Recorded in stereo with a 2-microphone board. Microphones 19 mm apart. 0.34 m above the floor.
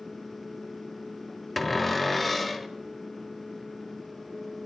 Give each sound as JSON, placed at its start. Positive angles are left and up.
{"t": 1.6, "sound": "a cupboard door", "side_deg": 10, "distance_m": 0.6}